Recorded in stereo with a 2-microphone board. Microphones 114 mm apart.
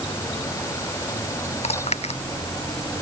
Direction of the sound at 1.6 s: 70° left (ahead or behind).